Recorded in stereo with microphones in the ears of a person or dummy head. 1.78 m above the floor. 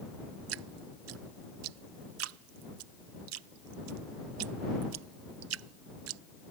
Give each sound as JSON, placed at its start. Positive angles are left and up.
{"t": 0.5, "sound": "dripping", "side_deg": -85}